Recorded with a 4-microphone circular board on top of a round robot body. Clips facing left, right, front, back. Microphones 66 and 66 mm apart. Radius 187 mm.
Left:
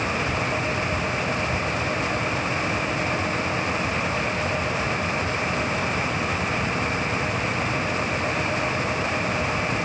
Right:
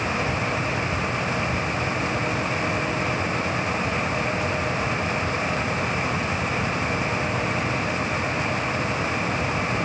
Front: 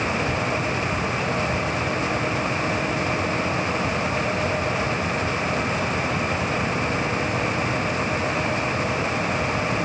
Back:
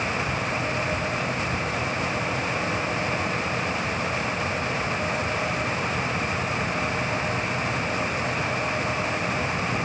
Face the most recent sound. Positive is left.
No sound to turn to.